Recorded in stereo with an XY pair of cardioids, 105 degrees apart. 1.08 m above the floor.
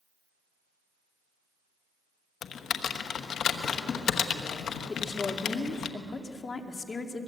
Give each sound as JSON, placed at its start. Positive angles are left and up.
{"t": 2.4, "sound": "typing on a keyboard", "azimuth_deg": 65, "distance_m": 1.3}
{"t": 4.9, "sound": "a woman speaking", "azimuth_deg": 35, "distance_m": 2.5}